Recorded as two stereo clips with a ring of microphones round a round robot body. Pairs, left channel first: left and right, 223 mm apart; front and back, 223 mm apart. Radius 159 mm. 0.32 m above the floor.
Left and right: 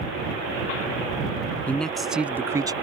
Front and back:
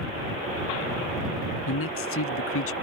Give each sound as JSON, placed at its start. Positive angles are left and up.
{"t": 1.7, "sound": "a man speaking", "azimuth_deg": 5}